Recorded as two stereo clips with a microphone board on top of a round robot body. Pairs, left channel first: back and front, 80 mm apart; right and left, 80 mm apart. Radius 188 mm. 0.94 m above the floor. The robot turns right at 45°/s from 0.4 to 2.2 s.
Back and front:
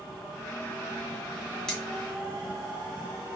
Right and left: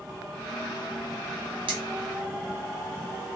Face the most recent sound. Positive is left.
turn(degrees=120)